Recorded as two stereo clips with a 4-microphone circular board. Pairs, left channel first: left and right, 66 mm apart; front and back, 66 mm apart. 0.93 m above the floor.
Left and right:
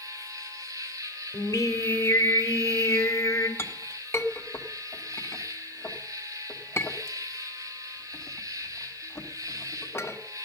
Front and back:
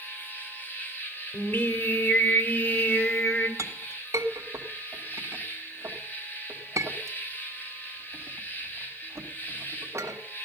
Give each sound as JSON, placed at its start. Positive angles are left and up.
{"t": 0.0, "sound": "an insect", "azimuth_deg": -60, "distance_m": 2.5}
{"t": 1.3, "sound": "singing", "azimuth_deg": 55, "distance_m": 2.5}
{"t": 3.6, "sound": "a clink", "azimuth_deg": 140, "distance_m": 1.3}